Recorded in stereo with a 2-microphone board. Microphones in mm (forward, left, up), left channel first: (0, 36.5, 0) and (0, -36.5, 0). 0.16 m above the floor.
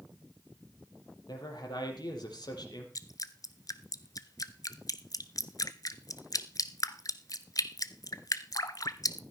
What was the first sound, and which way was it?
A man speaking, 70° left (ahead or behind).